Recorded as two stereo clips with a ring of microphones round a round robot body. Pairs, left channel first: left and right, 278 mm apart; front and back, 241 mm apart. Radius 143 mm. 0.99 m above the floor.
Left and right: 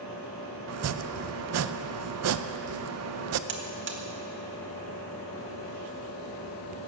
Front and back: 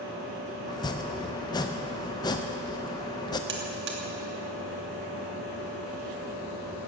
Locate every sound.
0.7 s chopping: 70° right, 0.6 m
3.5 s a buzzer: 135° right, 1.6 m